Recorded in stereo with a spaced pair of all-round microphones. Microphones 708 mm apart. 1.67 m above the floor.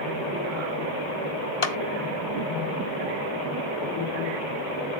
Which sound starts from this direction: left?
A clap, at 1.6 s.